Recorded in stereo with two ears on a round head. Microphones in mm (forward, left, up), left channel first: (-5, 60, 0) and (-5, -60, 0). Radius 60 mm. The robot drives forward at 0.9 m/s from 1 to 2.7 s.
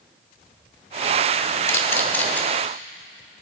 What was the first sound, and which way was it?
A camera shutter, 20° left (ahead or behind).